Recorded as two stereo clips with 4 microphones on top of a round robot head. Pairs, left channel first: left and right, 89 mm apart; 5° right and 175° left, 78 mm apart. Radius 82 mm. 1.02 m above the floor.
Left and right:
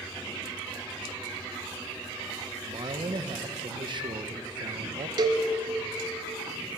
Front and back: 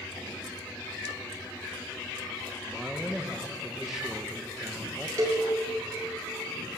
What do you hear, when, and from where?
2.6 s a man speaking: 105° right, 1.0 m
5.2 s a cowbell: 125° right, 1.2 m